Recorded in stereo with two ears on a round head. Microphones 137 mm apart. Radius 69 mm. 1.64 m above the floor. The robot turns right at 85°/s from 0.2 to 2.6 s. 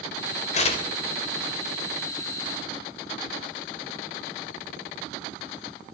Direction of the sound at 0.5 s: 50° left (ahead or behind).